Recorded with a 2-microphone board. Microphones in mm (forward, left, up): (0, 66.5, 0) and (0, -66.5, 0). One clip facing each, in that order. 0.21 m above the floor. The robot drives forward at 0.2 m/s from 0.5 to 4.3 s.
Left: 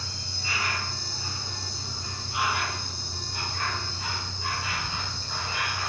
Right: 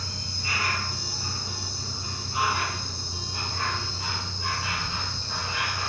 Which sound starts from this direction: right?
An insect, at 0.0 s.